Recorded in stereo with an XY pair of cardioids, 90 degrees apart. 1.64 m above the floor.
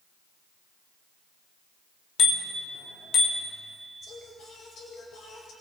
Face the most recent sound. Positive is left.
turn(degrees=65)